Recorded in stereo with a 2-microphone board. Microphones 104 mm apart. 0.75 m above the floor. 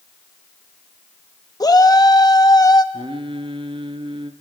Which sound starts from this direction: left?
A shout, at 1.6 s.